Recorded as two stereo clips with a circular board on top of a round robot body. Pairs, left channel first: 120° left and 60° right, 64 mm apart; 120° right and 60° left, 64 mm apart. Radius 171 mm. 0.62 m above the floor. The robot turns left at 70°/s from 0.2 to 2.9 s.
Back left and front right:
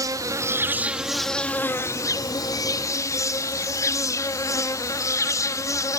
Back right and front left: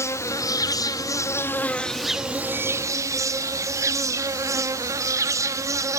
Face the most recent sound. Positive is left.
turn(degrees=90)